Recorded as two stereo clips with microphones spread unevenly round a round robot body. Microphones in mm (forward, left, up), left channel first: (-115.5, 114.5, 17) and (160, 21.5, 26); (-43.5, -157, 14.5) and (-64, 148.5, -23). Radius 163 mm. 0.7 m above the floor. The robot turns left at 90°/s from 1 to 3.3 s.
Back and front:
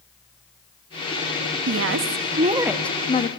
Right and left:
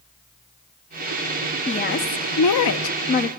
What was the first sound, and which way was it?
A woman speaking, 10° right.